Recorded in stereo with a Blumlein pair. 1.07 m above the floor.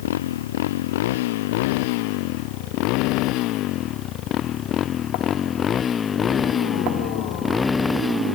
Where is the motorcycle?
55° left; by 8.4 s 5° left.